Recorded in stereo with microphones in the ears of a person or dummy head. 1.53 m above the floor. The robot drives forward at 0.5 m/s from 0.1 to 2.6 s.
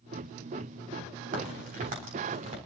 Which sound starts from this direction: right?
A crack, at 1.3 s.